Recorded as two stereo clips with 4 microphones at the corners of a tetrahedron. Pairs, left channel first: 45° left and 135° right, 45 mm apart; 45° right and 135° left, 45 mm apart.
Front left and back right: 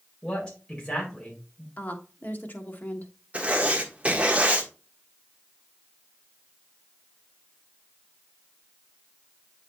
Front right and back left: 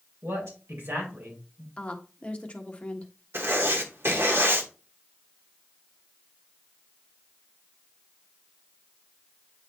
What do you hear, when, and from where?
0.2 s a man speaking: 110° left, 3.5 m
1.8 s a woman speaking: 15° left, 1.2 m
3.3 s writing: 165° left, 1.3 m